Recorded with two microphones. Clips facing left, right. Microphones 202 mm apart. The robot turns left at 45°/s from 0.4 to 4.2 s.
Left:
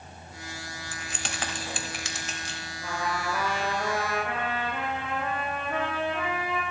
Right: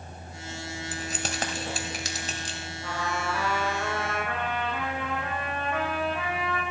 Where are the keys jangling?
35° right (ahead or behind), 0.9 m; by 2.6 s 30° right (ahead or behind), 0.9 m.